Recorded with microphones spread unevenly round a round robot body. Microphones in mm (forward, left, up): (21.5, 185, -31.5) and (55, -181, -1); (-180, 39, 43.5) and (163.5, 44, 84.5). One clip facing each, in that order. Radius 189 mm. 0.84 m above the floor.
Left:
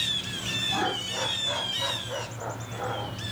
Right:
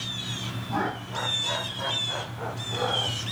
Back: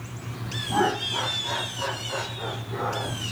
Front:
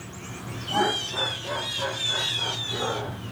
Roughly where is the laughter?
Behind right.